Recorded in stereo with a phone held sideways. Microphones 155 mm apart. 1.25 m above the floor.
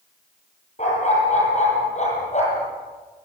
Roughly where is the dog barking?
Left.